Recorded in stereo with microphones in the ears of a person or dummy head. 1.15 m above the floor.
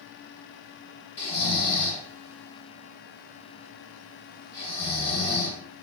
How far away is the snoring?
About 2 m.